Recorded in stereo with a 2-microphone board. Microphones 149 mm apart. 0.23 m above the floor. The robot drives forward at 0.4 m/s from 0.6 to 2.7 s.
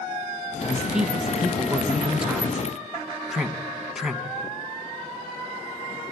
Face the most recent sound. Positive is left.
turn(degrees=-5)  # may be behind; listen again after turning